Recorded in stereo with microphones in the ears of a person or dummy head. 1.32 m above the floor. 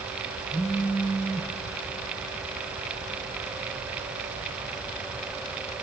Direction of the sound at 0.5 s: 5° left (ahead or behind).